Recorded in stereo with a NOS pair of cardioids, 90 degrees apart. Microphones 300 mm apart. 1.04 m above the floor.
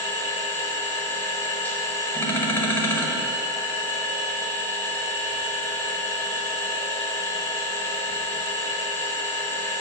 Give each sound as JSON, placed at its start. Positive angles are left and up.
{"t": 0.0, "sound": "a machine running", "azimuth_deg": 10, "distance_m": 0.9}